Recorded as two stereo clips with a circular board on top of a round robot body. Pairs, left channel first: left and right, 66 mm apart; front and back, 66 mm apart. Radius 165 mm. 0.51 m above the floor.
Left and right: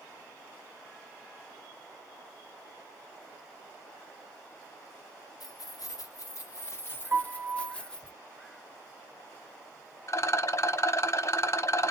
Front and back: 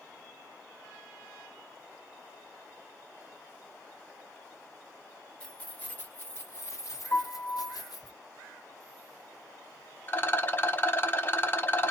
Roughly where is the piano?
Ahead right.